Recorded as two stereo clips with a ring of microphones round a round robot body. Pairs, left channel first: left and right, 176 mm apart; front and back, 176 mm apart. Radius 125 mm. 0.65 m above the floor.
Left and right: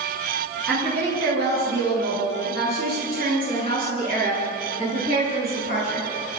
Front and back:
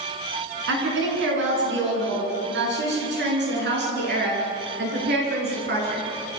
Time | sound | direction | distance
0.7 | a woman speaking | 175° left | 8.5 m